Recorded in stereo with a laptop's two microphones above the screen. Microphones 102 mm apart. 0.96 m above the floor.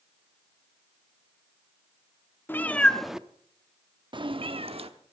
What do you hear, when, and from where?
2.5 s a cat meowing: 20° left (ahead or behind), 0.8 m; by 4.9 s 70° right (ahead or behind), 0.9 m